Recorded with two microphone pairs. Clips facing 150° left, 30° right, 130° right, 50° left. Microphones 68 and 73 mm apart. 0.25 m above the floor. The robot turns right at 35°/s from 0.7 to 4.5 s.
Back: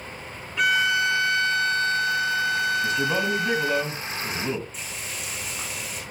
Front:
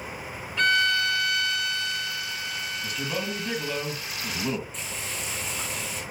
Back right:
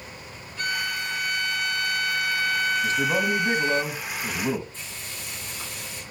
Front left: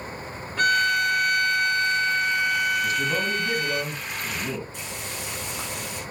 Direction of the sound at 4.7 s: 65° left.